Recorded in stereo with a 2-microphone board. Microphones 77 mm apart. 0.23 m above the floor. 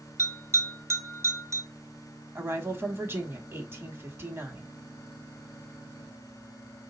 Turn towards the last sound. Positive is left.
turn(degrees=-35)  # may be behind; listen again after turning